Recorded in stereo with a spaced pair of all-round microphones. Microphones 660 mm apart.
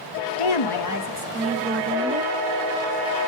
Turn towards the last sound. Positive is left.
turn(degrees=-5)  # may be behind; listen again after turning